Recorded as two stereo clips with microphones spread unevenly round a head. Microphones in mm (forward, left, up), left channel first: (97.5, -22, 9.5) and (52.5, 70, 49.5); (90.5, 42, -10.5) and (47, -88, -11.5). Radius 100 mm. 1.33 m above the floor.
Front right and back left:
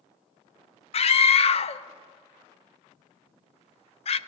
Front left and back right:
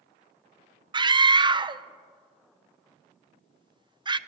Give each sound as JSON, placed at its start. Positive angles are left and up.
{"t": 0.9, "sound": "a scream", "azimuth_deg": -50, "distance_m": 0.7}